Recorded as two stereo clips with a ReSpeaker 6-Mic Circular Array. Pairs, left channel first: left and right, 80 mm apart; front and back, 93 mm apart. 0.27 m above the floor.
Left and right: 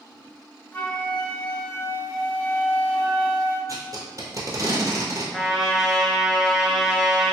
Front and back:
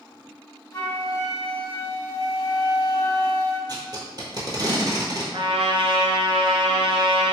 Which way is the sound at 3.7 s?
135° right.